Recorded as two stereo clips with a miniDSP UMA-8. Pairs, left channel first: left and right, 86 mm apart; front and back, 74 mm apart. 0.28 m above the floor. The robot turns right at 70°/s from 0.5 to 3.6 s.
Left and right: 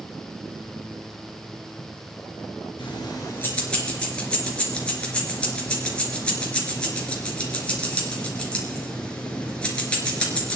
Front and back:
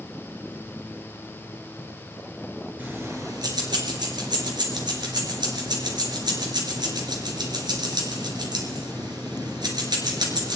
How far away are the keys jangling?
About 3 m.